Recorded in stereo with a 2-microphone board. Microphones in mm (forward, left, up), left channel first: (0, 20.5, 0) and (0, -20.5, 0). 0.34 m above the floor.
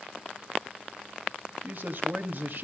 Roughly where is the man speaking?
Right.